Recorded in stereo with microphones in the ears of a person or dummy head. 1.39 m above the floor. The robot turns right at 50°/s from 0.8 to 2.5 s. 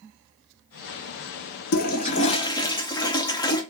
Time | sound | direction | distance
1.7 | a toilet flushing | 115° left | 0.5 m